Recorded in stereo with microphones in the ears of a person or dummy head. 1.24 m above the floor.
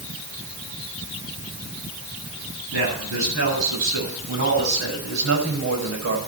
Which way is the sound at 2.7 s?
80° right.